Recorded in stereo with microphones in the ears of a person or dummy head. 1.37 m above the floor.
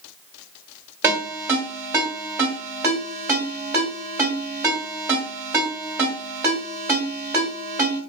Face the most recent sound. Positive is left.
turn(degrees=-15)  # may be behind; listen again after turning